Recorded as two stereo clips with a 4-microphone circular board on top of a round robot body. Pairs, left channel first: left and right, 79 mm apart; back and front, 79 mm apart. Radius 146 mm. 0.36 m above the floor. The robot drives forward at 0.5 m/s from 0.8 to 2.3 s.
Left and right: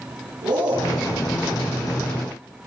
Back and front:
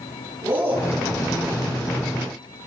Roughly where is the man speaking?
Ahead right.